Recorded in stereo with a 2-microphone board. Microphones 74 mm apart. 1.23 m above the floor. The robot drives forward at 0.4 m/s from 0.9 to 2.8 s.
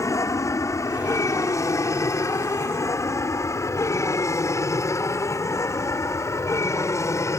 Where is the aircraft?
40° left (ahead or behind).